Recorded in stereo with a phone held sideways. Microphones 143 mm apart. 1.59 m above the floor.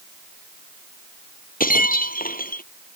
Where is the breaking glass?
85° left.